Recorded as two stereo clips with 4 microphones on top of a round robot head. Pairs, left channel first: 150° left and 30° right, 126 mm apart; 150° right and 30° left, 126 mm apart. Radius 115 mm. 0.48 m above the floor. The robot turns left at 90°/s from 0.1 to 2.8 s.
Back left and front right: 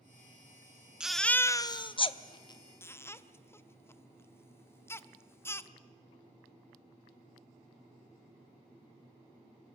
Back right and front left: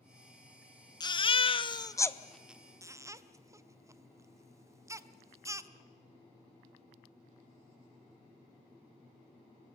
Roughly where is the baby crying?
Right.